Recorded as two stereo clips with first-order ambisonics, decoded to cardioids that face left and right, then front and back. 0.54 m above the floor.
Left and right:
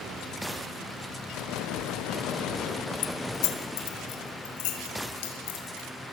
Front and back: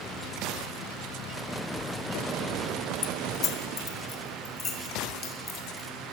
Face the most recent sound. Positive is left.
turn(degrees=70)